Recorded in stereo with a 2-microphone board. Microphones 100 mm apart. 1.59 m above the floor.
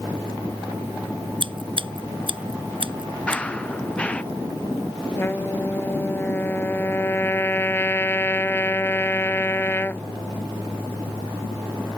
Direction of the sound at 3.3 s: 15° left (ahead or behind).